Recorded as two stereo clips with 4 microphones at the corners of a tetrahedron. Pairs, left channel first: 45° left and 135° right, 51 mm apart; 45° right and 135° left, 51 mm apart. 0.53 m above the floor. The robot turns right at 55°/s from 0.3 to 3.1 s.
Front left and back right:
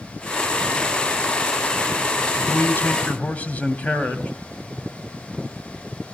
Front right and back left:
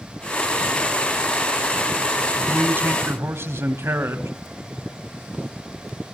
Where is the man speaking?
70° left, 3 m; by 4.3 s 105° left, 3 m.